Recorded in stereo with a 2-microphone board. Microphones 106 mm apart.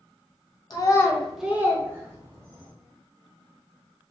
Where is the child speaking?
40° left (ahead or behind), 0.5 m; by 2.7 s 30° right (ahead or behind), 1.6 m.